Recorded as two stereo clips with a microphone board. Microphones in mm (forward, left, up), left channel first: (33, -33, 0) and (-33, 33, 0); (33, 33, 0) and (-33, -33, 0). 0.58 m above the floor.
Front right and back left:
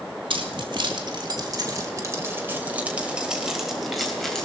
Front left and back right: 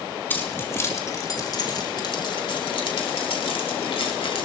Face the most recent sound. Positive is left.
turn(degrees=40)